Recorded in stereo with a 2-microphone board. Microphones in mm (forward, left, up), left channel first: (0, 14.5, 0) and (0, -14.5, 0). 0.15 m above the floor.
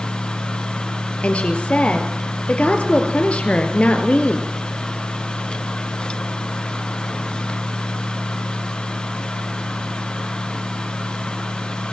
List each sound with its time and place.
1.2 s a woman speaking: 55° left (ahead or behind), 3.5 m